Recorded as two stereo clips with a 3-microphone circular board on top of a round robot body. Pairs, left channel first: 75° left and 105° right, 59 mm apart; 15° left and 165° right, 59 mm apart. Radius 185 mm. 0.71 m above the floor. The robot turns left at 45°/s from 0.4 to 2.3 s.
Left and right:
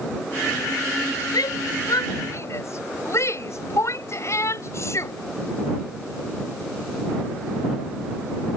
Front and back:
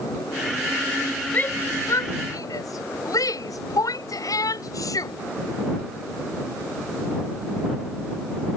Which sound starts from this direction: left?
A shout, at 1.3 s.